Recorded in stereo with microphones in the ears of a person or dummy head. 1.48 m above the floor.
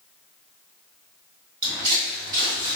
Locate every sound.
1.6 s footsteps: 30° right (ahead or behind), 2.0 m; by 2.8 s 25° right (ahead or behind), 1.6 m